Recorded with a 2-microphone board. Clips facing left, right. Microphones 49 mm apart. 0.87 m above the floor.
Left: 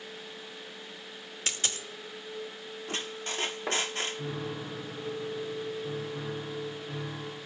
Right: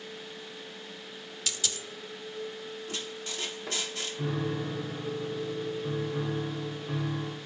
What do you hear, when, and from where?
1.5 s a dropped coin: 45° left (ahead or behind), 0.7 m
2.9 s a squeak: 45° left (ahead or behind), 0.6 m
4.2 s a piano: 30° right (ahead or behind), 4 m